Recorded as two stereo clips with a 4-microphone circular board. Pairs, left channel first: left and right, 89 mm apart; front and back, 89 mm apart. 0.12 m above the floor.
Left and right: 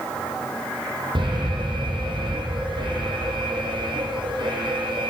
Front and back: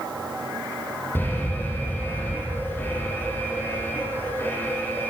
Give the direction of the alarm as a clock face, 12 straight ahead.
2 o'clock.